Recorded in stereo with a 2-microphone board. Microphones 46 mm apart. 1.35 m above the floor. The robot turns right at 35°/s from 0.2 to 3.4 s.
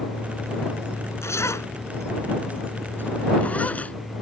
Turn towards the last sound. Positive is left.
turn(degrees=35)  # may be behind; listen again after turning